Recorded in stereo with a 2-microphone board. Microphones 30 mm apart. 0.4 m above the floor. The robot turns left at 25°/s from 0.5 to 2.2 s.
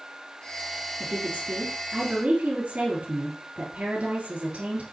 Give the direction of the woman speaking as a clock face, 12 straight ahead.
3 o'clock.